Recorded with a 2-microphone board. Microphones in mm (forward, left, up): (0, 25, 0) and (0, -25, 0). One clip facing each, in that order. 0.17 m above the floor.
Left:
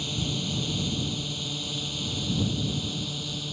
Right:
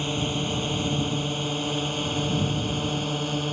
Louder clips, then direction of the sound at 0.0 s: Right 4 dB; 40° right (ahead or behind).